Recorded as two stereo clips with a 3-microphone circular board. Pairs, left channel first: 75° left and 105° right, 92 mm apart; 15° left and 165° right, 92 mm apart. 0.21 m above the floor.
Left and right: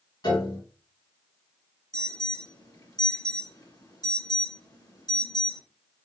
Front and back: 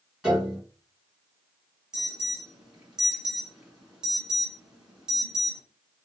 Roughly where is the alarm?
Behind left.